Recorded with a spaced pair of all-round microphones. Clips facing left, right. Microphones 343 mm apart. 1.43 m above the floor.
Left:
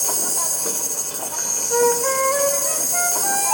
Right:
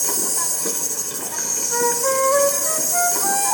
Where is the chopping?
No chopping in this recording.